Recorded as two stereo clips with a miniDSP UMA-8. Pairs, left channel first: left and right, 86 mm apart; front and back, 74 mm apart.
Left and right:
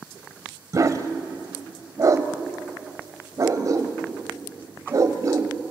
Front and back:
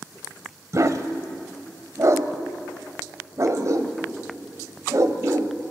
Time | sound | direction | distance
0.7 | a dog barking | 135° right | 1.1 m